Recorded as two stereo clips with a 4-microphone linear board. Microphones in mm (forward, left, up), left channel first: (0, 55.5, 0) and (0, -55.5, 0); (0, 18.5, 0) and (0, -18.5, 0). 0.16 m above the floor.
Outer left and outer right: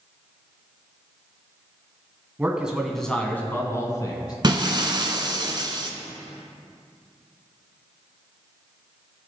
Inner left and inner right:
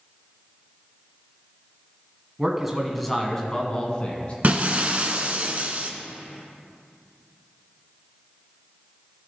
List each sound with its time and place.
2.4 s a man speaking: 15° right (ahead or behind), 1.2 m; by 4.3 s 40° left (ahead or behind), 1.5 m
4.4 s breaking glass: 45° right (ahead or behind), 0.9 m